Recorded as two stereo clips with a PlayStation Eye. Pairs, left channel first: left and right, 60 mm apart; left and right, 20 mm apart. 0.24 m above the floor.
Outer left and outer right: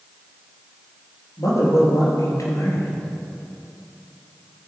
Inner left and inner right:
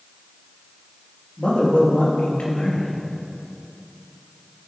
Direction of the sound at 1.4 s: 75° left (ahead or behind).